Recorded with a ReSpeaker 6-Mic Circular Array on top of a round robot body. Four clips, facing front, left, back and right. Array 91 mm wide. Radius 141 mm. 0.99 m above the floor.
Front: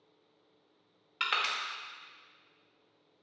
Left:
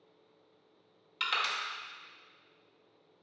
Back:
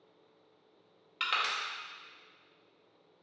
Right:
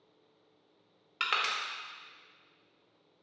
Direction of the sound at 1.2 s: 70° right.